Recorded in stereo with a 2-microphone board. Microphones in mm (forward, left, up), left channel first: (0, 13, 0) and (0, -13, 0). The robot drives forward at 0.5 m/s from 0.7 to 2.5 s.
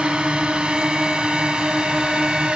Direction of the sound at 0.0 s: 45° right (ahead or behind).